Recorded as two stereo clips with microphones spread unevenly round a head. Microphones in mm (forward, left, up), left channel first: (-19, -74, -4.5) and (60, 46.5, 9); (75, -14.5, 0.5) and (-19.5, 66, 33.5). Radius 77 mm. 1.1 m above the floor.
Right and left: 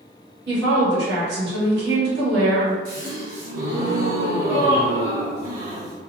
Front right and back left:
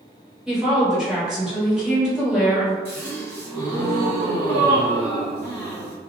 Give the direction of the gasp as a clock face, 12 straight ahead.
11 o'clock.